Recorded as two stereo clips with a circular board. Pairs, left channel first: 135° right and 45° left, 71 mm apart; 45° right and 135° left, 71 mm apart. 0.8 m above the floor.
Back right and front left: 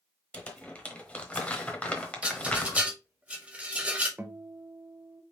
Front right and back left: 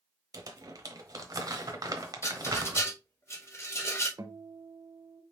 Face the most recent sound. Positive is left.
turn(degrees=115)